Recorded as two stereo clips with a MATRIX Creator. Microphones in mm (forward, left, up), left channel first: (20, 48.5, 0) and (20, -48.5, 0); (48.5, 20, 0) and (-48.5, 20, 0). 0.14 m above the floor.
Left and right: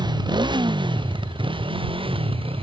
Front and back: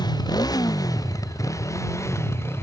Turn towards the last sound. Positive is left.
turn(degrees=-65)